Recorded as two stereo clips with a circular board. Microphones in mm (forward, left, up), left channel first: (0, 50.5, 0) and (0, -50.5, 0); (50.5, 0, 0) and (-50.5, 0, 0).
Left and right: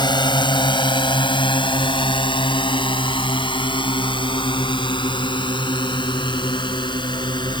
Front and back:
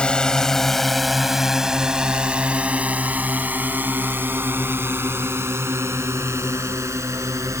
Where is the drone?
80° left; by 7.6 s 125° left.